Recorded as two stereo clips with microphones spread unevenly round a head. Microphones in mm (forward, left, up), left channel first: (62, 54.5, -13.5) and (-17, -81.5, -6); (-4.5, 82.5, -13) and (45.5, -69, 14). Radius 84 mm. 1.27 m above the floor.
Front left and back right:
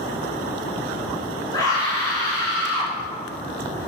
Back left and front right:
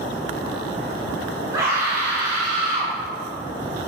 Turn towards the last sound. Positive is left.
turn(degrees=-10)